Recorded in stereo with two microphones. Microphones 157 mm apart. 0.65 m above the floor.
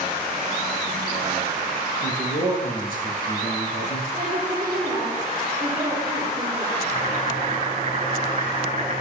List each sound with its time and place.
2.0 s a man speaking: 60° left (ahead or behind), 6 m; by 4.0 s 70° left (ahead or behind), 6.5 m
4.1 s a woman speaking: 25° right (ahead or behind), 9 m
6.8 s boiling: 40° right (ahead or behind), 5 m